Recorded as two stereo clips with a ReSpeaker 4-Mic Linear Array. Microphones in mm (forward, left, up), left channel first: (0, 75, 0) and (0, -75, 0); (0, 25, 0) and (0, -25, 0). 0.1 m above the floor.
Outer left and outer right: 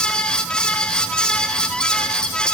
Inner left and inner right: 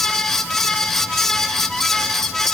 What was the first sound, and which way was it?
Only background noise.